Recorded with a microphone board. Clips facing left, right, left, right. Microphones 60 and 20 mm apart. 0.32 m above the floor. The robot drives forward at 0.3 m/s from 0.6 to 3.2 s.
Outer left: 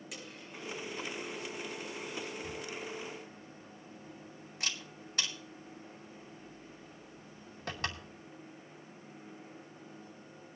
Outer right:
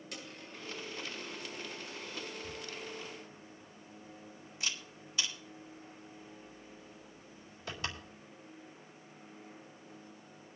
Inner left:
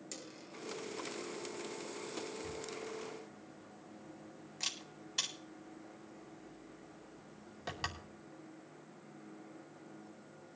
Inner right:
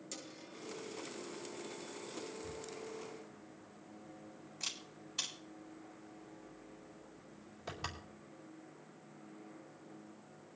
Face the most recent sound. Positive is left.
turn(degrees=50)  # may be behind; listen again after turning